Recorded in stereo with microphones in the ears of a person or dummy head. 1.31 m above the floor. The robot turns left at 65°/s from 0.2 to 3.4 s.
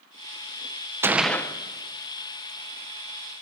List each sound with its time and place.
1.0 s a gunshot: 165° right, 0.8 m; by 1.6 s 160° left, 0.8 m